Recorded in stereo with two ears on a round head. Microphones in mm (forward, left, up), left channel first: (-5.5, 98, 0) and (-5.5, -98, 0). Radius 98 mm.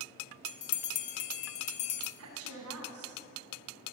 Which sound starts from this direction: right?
A woman speaking, at 2.2 s.